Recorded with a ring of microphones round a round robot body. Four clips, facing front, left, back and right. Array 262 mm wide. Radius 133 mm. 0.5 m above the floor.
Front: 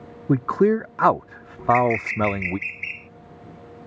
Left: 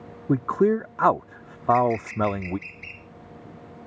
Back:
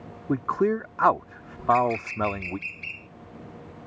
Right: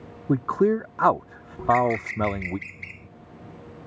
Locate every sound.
0.3 s a man speaking: 10° left
1.6 s a bird: 75° right